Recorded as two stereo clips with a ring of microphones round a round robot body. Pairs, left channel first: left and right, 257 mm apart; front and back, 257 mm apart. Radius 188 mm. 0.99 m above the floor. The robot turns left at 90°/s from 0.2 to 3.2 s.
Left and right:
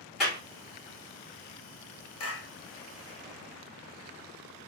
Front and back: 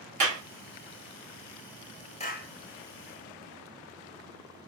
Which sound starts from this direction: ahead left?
A clap, at 2.2 s.